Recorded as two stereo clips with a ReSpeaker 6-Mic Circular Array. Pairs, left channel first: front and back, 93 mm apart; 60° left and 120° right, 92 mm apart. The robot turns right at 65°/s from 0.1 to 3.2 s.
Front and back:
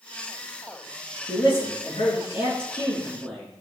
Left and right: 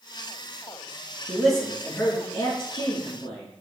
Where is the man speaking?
45° right, 4 m; by 3.6 s 80° left, 4 m.